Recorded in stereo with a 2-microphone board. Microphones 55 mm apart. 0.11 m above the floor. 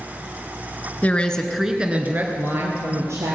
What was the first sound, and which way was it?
A woman speaking, 25° left (ahead or behind).